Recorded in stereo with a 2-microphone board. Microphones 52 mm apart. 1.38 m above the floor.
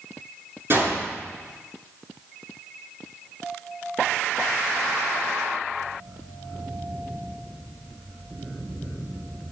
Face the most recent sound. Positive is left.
turn(degrees=-45)  # may be behind; listen again after turning